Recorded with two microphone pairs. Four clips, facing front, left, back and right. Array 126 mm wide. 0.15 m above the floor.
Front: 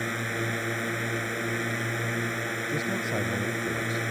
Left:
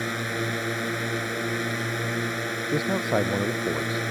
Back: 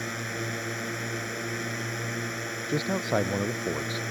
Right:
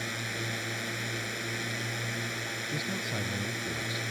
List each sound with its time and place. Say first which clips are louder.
0.0 s a drone: left 8 dB, front 3 dB; 80° left
2.7 s a man speaking: left 13 dB, back 5 dB; 115° left